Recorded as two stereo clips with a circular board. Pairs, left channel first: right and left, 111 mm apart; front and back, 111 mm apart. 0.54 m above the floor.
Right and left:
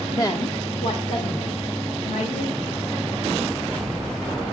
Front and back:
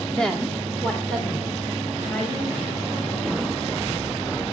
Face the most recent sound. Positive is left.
turn(degrees=-85)